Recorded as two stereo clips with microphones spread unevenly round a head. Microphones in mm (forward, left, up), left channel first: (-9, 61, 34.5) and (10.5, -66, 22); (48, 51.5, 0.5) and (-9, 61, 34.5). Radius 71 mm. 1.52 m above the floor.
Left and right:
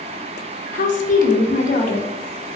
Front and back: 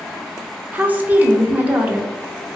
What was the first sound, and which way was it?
A woman speaking, 125° left.